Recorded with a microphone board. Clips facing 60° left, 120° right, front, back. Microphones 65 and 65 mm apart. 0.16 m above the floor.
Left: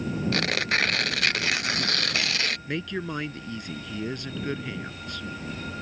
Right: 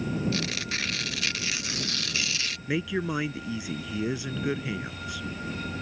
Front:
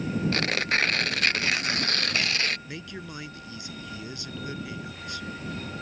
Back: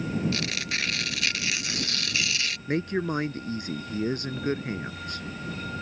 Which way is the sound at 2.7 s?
160° left.